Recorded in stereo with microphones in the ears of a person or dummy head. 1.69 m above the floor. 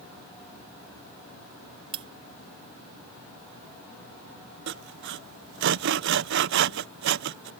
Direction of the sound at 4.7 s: 65° right (ahead or behind).